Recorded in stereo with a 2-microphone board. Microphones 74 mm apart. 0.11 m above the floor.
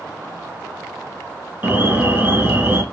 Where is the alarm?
25° right (ahead or behind), 0.9 m.